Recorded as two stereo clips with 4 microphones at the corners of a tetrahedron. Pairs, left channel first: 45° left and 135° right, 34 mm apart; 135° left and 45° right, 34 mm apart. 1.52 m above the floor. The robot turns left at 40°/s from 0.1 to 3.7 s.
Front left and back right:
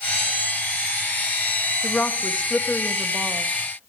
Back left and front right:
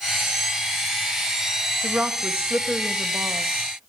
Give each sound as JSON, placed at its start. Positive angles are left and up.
{"t": 1.8, "sound": "a woman speaking", "azimuth_deg": 0, "distance_m": 1.3}